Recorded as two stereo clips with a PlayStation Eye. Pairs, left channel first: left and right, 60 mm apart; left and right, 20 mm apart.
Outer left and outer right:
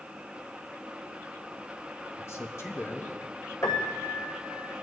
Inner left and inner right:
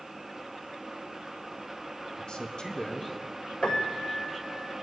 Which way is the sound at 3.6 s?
50° left (ahead or behind).